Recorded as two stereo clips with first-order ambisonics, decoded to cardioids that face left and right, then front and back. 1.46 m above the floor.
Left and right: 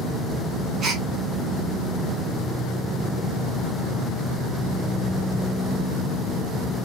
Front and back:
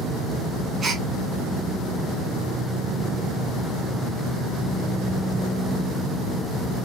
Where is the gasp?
130° right, 0.7 m.